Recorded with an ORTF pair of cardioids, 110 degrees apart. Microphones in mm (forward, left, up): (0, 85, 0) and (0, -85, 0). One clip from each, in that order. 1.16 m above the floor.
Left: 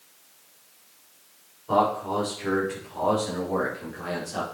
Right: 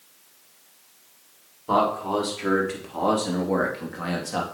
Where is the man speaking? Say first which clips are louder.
Right 1 dB; 50° right, 3.5 m; by 4.4 s 55° right, 2.5 m.